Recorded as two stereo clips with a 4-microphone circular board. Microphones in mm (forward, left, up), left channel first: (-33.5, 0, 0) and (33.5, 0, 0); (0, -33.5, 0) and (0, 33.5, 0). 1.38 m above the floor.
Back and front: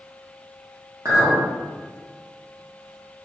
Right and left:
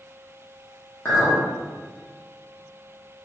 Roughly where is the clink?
Ahead right.